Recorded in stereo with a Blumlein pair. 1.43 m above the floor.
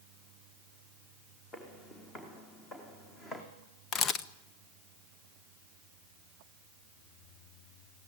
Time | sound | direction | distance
1.5 | footsteps | 20° left | 5.5 m
3.9 | a camera shutter | 25° left | 0.9 m